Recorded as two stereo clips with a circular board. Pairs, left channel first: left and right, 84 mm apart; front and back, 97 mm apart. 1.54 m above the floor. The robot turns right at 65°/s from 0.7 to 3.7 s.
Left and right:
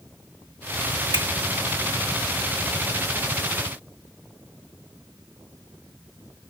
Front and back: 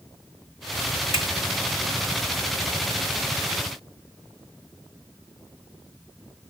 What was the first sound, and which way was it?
A finger snap, 125° right.